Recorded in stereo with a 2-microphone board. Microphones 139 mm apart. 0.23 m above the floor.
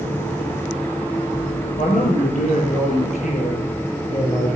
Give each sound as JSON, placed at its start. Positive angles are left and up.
{"t": 1.8, "sound": "a man speaking", "side_deg": 65, "distance_m": 5.5}